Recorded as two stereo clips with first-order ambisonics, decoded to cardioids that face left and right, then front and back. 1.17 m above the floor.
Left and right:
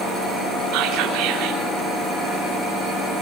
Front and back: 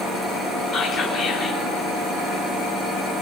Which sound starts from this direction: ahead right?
Whispering, at 0.7 s.